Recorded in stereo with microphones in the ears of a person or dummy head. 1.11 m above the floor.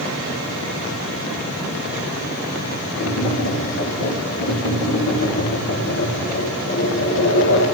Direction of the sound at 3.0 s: 55° left (ahead or behind).